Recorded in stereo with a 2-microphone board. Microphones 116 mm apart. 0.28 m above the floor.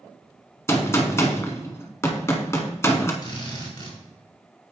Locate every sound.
0.7 s a gunshot: 25° left (ahead or behind), 0.9 m
3.2 s a drill: 40° left (ahead or behind), 2.5 m